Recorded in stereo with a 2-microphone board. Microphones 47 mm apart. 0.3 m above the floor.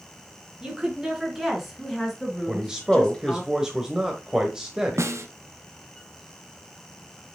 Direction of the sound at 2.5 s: 15° right (ahead or behind).